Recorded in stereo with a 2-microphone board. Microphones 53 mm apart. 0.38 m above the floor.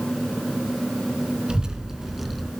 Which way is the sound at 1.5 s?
15° right (ahead or behind).